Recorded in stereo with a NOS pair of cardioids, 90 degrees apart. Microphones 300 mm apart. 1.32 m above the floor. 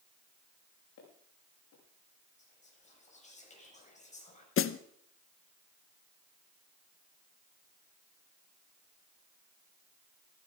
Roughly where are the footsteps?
Ahead left.